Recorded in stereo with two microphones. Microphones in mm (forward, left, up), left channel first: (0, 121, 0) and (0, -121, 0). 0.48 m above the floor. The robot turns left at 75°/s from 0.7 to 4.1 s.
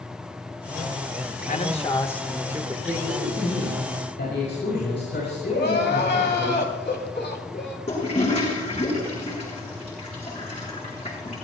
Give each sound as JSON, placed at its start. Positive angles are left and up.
{"t": 1.5, "sound": "a man speaking", "azimuth_deg": 65, "distance_m": 1.2}
{"t": 2.9, "sound": "a man speaking", "azimuth_deg": -140, "distance_m": 5.0}
{"t": 5.5, "sound": "crying", "side_deg": 50, "distance_m": 3.0}
{"t": 7.9, "sound": "a toilet flushing", "side_deg": 30, "distance_m": 5.5}